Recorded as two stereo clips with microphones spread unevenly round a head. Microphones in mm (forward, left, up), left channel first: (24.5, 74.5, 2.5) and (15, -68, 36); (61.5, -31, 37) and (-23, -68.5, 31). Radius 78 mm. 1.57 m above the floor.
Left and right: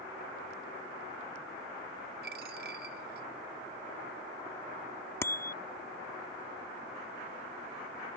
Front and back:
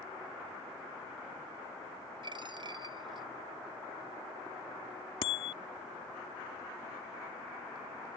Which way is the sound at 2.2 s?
120° right.